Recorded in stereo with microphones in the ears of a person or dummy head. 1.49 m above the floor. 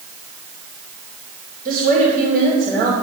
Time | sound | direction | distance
1.6 | a woman speaking | 55° right (ahead or behind) | 2.5 m